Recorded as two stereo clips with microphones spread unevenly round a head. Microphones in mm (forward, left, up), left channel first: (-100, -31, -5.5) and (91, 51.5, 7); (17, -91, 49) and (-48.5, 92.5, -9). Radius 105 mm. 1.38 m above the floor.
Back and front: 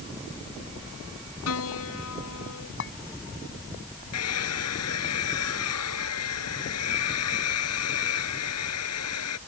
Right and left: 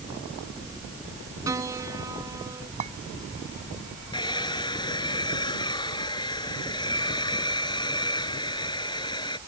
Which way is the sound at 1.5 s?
175° right.